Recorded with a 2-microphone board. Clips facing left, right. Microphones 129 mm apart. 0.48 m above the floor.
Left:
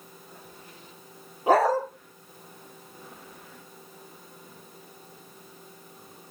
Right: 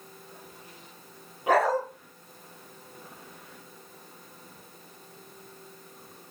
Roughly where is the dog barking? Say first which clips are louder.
Left 3 dB; left.